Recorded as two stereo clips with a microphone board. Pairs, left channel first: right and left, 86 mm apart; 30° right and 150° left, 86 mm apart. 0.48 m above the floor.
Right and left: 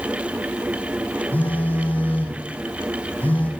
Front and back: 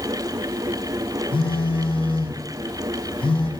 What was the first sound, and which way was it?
A phone buzzing, 20° right.